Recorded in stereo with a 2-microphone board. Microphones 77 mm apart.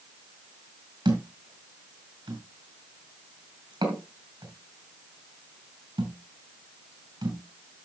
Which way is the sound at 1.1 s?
85° right.